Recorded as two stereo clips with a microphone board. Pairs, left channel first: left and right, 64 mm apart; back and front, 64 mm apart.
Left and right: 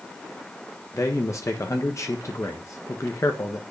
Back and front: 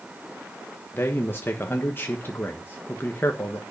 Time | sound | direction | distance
0.9 | a man speaking | 125° left | 1.3 m